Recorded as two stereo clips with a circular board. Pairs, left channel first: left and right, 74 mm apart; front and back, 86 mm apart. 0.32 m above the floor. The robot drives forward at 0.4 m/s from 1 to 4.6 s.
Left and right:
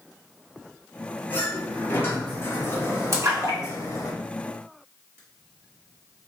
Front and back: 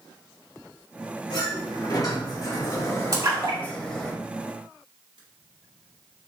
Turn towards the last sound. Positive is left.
turn(degrees=-145)